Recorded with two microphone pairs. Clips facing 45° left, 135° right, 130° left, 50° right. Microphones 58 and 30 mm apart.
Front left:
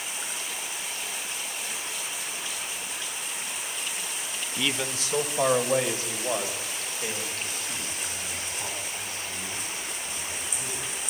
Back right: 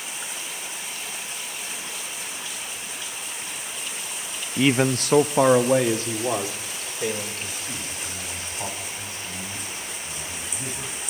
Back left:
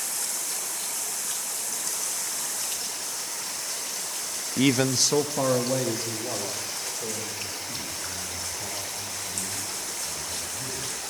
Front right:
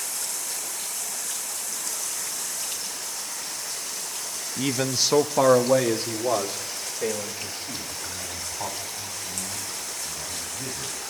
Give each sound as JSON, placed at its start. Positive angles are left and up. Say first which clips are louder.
{"t": 4.6, "sound": "a man speaking", "louder": "back right 10 dB, back left 3 dB", "azimuth_deg": 160, "distance_m": 0.6}